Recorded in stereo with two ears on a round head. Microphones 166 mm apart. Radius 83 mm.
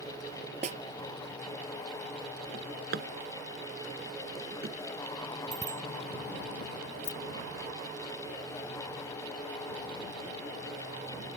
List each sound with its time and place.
0.6 s a snare drum: 40° right (ahead or behind)
2.5 s a drawer: 55° right (ahead or behind)
5.5 s a bicycle bell: 20° right (ahead or behind)
7.0 s keys jangling: 60° left (ahead or behind)